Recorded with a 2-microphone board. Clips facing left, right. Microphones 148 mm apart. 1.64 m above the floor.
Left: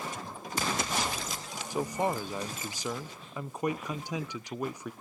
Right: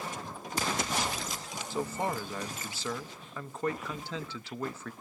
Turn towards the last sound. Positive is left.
turn(degrees=15)  # may be behind; listen again after turning